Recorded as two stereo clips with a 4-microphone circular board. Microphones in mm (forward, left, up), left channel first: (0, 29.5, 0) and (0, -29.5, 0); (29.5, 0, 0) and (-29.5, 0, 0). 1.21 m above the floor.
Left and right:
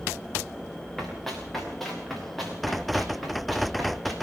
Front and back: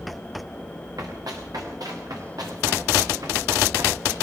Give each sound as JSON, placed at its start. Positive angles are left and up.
{"t": 1.0, "sound": "running footsteps", "azimuth_deg": 175, "distance_m": 7.0}